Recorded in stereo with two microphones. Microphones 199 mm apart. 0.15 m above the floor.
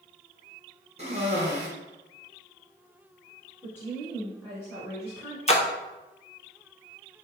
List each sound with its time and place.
1.0 s a cough: 35° right (ahead or behind), 1.3 m
3.6 s a woman speaking: 10° left (ahead or behind), 1.8 m
5.5 s a splash: 35° left (ahead or behind), 0.6 m